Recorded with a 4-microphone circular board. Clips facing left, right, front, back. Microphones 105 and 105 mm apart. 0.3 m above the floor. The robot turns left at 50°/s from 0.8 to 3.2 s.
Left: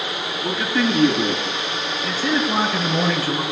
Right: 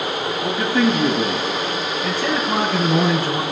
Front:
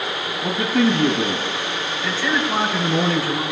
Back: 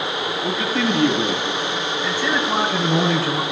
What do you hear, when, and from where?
0.4 s a man speaking: 40° right, 9 m; by 1.5 s 75° right, 9 m
2.0 s a man speaking: 100° right, 5.5 m; by 3.4 s 160° right, 5.5 m